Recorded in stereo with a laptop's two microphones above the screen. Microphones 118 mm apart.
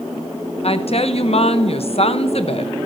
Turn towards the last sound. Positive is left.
turn(degrees=55)  # may be behind; listen again after turning